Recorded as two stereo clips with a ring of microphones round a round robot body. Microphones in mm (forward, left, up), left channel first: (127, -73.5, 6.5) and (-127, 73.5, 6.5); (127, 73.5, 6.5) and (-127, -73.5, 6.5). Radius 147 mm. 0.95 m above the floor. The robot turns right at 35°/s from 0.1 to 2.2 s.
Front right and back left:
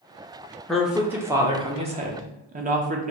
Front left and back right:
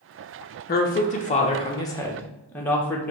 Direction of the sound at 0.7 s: 55° left.